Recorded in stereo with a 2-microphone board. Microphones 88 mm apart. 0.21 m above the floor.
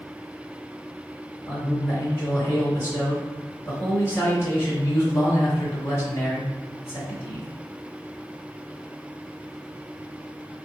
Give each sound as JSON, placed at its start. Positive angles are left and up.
{"t": 1.5, "sound": "a man speaking", "side_deg": 30, "distance_m": 1.3}